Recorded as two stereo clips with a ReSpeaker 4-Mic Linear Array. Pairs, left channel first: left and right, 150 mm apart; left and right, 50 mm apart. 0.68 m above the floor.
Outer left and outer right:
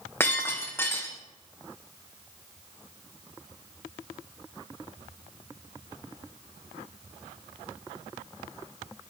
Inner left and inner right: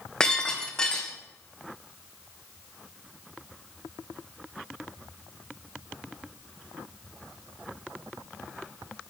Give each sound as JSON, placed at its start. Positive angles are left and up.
{"t": 0.2, "sound": "breaking glass", "side_deg": 15, "distance_m": 3.0}